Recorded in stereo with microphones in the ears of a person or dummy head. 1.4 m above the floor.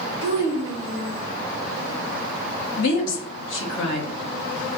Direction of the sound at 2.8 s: 70° left (ahead or behind).